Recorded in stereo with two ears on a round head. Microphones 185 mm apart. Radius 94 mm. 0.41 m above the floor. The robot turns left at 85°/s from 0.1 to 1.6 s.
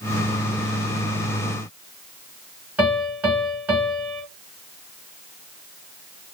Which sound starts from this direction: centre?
A piano, at 2.8 s.